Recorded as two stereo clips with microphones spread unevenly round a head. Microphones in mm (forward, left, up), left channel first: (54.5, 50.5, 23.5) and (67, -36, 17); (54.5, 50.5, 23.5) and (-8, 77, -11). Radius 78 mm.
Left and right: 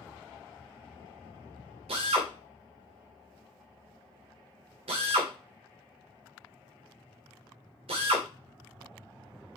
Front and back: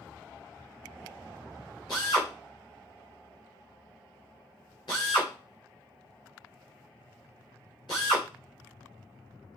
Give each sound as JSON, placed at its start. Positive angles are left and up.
{"t": 1.9, "sound": "a drill", "azimuth_deg": -85, "distance_m": 2.5}